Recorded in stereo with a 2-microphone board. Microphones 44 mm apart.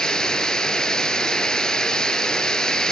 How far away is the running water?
About 1.0 m.